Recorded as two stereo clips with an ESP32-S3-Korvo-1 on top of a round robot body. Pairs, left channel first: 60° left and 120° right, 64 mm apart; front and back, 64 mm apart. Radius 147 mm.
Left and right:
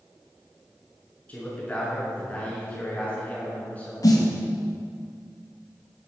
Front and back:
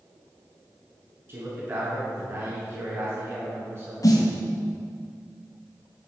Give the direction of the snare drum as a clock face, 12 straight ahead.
11 o'clock.